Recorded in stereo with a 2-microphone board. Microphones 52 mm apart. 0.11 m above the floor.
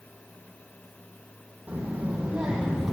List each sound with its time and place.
1.7 s a child speaking: 25° right (ahead or behind), 4 m; by 2.9 s 5° right (ahead or behind), 3 m